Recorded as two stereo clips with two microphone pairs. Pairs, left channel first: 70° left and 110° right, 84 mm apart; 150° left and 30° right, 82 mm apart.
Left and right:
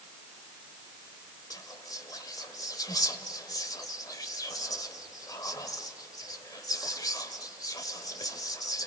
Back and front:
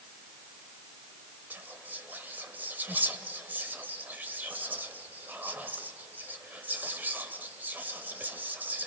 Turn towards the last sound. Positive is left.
turn(degrees=35)